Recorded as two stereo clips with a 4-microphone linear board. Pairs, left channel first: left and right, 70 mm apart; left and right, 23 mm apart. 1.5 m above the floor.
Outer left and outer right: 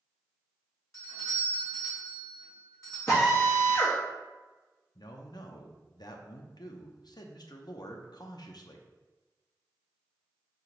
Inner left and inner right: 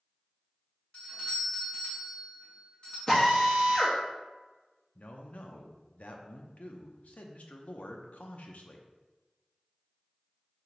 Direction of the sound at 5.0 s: 70° left (ahead or behind).